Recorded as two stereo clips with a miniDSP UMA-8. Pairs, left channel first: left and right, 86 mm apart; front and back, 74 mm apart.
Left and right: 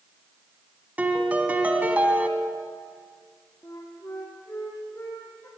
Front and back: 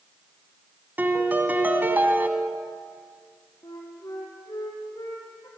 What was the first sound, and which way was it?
A piano, 145° right.